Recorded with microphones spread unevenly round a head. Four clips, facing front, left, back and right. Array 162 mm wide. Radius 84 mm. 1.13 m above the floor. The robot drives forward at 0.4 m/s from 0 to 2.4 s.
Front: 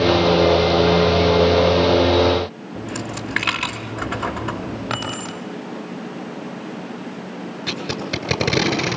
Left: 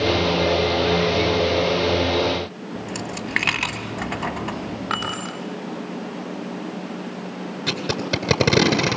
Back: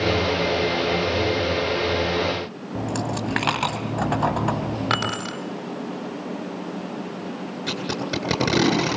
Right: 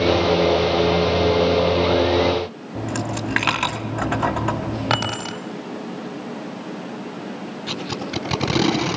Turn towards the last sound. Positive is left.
turn(degrees=100)